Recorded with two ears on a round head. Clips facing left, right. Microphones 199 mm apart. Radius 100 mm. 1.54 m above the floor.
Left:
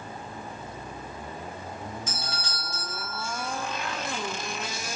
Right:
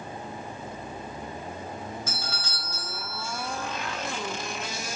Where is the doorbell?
15° left (ahead or behind), 0.9 m.